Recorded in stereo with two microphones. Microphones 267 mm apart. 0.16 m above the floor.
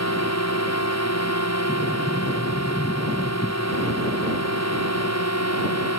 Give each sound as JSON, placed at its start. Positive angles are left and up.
{"t": 0.0, "sound": "a drone", "side_deg": 75}
{"t": 1.7, "sound": "a sliding door", "side_deg": 25}